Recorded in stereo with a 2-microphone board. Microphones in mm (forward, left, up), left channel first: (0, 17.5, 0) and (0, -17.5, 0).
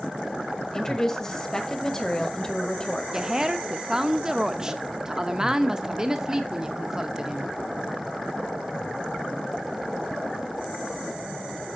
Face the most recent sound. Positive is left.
turn(degrees=-15)  # may be behind; listen again after turning